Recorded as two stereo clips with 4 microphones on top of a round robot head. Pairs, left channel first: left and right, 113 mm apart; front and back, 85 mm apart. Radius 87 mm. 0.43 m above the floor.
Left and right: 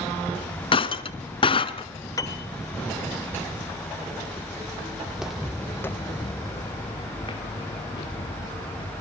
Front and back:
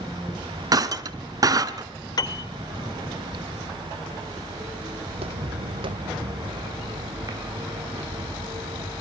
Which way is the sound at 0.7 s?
135° left.